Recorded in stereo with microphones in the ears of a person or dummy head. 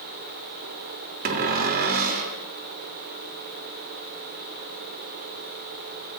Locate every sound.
1.2 s a cupboard door: 55° right (ahead or behind), 0.7 m